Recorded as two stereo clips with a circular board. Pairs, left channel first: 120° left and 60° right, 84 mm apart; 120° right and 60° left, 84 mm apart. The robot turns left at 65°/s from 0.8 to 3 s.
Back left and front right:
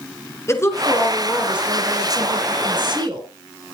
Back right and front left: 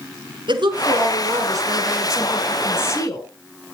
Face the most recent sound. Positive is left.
turn(degrees=-75)